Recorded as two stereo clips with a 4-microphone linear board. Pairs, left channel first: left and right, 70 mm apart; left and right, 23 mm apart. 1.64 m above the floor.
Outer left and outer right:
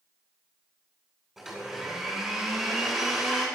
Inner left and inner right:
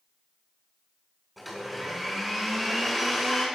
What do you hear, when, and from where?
1.4 s a blender: 5° right (ahead or behind), 9 m